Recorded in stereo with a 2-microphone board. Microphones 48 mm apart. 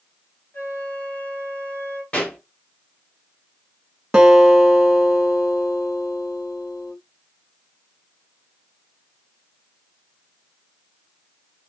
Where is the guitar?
10° right (ahead or behind), 0.8 m.